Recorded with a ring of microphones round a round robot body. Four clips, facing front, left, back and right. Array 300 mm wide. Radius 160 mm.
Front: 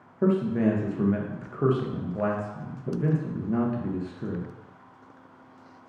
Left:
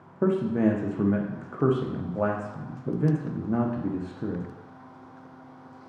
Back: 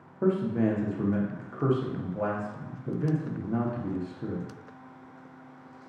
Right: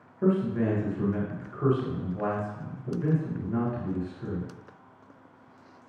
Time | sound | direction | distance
0.2 | a man speaking | 75° left | 0.6 m